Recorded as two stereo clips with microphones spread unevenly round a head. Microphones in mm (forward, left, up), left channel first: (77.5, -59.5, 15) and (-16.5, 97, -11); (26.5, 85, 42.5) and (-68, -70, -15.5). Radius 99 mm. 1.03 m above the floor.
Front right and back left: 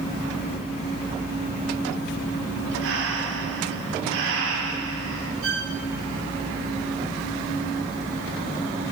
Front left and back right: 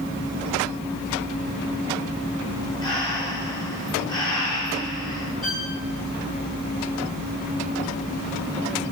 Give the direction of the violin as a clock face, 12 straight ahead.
7 o'clock.